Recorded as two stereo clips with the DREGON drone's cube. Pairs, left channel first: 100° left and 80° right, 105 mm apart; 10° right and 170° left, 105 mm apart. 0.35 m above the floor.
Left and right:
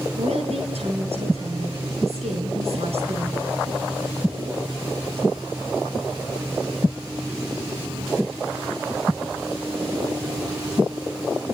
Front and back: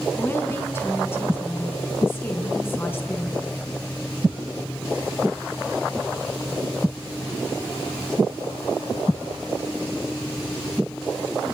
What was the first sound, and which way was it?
A woman speaking, 80° right.